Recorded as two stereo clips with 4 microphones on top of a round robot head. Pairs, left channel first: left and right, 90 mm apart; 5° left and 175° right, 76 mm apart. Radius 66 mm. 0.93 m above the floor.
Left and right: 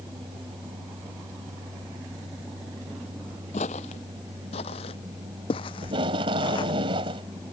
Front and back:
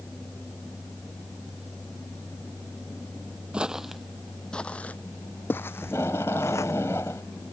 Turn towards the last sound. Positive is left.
turn(degrees=-65)